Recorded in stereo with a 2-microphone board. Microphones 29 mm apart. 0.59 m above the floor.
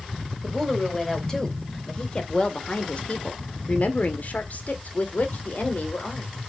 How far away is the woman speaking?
About 3 m.